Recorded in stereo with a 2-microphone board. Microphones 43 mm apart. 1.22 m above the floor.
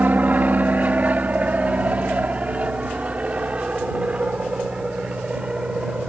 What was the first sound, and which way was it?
An aircraft, 40° right (ahead or behind).